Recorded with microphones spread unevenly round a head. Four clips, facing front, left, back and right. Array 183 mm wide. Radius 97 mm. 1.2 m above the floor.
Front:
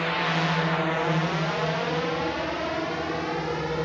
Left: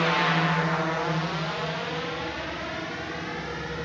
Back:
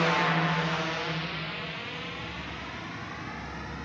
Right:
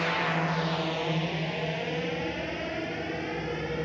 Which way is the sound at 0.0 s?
120° left.